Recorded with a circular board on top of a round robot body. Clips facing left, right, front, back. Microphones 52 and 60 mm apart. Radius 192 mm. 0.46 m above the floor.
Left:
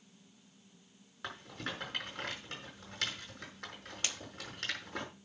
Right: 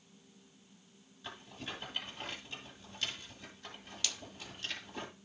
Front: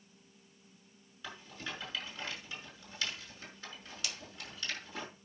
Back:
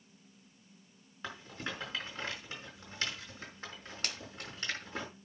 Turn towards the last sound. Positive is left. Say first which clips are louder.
# left 1 dB, back 2 dB
turn(degrees=145)